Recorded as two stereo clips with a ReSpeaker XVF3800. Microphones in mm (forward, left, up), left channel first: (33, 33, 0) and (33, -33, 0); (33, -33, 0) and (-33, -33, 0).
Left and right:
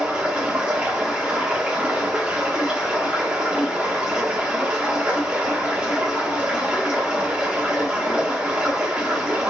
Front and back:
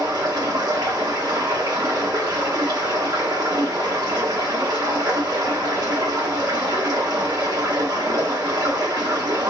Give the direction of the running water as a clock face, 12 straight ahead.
6 o'clock.